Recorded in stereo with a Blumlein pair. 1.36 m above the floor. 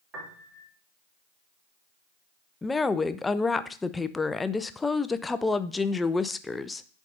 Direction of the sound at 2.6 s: 10° left.